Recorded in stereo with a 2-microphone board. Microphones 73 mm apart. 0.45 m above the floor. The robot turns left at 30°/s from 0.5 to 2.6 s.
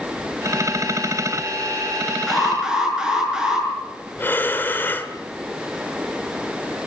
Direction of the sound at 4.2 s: 30° left (ahead or behind).